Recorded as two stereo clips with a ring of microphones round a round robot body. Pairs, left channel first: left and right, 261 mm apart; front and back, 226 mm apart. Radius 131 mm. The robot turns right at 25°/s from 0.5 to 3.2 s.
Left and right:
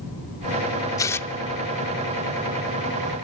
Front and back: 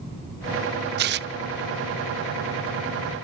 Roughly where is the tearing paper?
Behind.